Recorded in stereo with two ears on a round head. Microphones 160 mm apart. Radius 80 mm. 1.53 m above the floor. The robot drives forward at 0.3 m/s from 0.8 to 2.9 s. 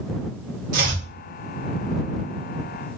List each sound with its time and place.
0.7 s chopping: 50° right (ahead or behind), 1.5 m